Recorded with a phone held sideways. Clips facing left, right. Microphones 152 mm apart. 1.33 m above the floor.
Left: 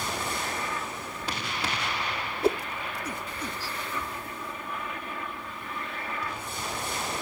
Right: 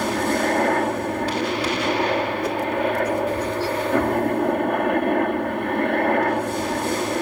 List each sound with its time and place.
0.0 s a helicopter: 65° right (ahead or behind)
2.4 s a whoosh: 30° left (ahead or behind)